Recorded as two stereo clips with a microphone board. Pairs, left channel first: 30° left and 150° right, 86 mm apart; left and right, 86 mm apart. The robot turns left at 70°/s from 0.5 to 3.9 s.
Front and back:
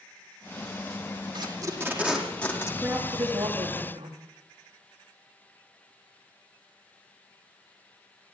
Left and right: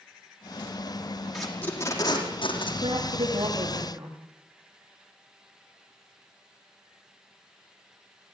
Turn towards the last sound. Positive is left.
turn(degrees=-160)